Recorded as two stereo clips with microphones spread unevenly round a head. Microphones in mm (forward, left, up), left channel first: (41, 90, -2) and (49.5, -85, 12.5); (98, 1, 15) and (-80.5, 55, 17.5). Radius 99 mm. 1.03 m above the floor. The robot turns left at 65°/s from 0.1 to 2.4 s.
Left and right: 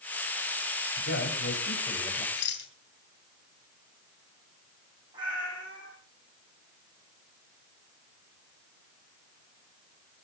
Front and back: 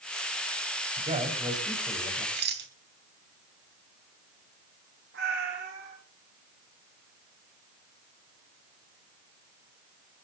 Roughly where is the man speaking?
Behind left.